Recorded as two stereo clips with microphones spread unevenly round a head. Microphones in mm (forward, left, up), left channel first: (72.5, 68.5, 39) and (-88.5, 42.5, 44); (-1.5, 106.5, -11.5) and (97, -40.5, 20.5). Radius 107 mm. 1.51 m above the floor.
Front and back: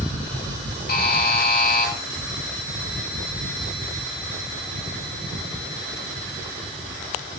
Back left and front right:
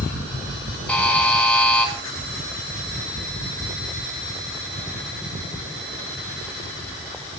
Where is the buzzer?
40° left, 5.5 m.